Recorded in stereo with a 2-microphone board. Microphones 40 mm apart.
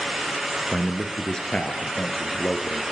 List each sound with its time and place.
0.7 s a man speaking: 5° left (ahead or behind), 2.5 m; by 2.8 s 35° left (ahead or behind), 4 m